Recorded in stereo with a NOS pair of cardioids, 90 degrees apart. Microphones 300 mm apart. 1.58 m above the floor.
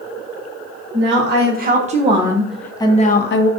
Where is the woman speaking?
40° right, 1.5 m; by 3.5 s 55° left, 0.8 m.